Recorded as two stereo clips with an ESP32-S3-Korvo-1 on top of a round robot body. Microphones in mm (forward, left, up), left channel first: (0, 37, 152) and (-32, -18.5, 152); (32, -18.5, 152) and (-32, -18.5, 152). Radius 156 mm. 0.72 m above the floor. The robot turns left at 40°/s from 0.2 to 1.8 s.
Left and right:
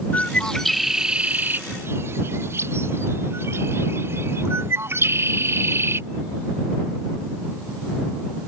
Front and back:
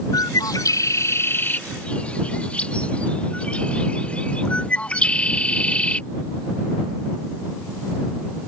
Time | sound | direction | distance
0.1 | a bird | 5° right | ?